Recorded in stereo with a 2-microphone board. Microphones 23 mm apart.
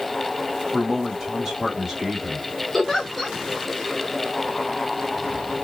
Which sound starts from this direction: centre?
A giggle, at 2.7 s.